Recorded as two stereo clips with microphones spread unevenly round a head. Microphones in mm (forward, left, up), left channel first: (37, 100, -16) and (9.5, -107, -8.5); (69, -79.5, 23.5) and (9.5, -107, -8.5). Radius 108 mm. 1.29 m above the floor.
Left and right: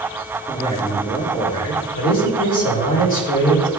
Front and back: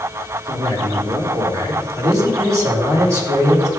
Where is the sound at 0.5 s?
155° left, 4.5 m.